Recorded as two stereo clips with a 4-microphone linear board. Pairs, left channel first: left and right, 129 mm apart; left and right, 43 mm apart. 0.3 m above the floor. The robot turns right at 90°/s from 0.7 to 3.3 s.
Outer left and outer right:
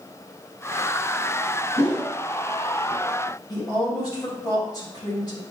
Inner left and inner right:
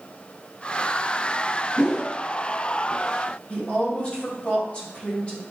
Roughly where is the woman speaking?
Left.